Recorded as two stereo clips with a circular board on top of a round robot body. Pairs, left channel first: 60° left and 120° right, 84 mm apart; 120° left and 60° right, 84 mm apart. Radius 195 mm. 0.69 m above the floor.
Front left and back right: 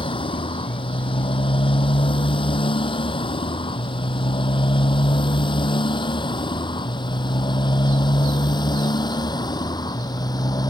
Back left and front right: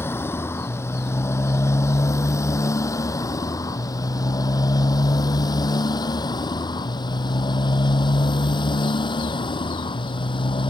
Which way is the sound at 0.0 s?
55° left.